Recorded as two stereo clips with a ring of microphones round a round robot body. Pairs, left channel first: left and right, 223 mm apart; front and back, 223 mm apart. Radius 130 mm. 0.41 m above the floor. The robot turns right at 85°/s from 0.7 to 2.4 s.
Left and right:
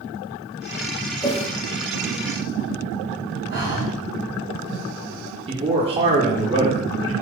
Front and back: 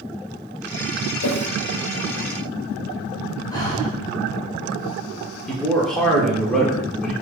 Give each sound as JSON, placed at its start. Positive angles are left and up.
{"t": 1.2, "sound": "a whoosh", "azimuth_deg": 15, "distance_m": 0.5}
{"t": 3.5, "sound": "breathing", "azimuth_deg": 70, "distance_m": 1.5}
{"t": 5.5, "sound": "a man speaking", "azimuth_deg": -85, "distance_m": 1.0}